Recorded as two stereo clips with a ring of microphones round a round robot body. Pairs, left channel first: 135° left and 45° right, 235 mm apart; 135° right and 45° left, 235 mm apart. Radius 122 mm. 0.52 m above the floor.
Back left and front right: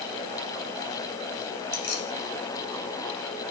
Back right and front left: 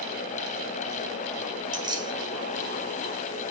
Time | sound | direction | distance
1.7 | keys jangling | 115° left | 2.0 m